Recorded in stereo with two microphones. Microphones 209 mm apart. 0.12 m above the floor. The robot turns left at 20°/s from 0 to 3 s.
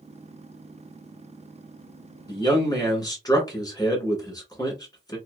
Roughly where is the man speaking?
Left.